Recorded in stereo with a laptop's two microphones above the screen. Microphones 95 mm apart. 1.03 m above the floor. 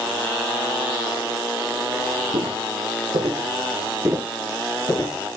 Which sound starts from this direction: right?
Footsteps, at 2.3 s.